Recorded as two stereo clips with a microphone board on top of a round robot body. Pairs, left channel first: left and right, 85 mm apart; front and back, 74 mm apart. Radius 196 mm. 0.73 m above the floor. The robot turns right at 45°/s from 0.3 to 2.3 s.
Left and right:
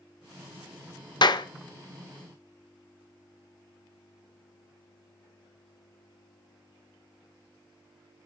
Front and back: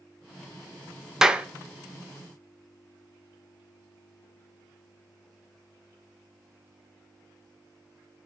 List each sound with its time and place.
1.2 s a clap: 95° left, 0.8 m; by 1.5 s 110° left, 0.8 m